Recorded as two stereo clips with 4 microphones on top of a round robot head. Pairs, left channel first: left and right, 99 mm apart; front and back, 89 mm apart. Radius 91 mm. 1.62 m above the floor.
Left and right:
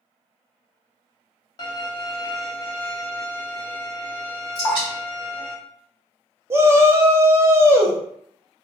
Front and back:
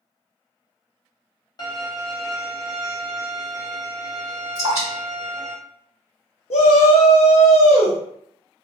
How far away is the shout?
About 0.5 m.